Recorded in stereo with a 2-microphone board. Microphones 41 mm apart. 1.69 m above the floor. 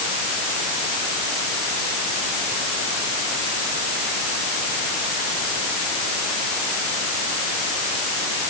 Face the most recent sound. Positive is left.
No sound to turn to.